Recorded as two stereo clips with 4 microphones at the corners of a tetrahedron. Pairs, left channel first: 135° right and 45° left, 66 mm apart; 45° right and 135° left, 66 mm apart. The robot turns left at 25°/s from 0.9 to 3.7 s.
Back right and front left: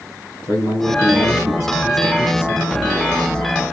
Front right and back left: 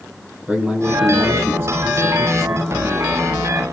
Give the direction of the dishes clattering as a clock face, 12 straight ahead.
No dishes clattering in this recording.